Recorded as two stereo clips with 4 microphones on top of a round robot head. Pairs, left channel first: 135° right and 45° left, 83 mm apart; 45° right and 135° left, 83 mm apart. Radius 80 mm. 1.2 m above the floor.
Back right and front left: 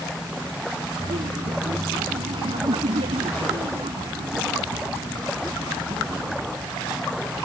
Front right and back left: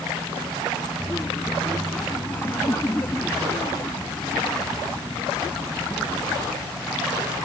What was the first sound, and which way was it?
Laughter, 25° left.